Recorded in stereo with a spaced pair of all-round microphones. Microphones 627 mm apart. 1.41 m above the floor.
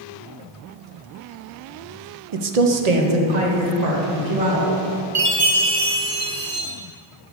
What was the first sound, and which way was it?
A woman speaking, 55° right (ahead or behind).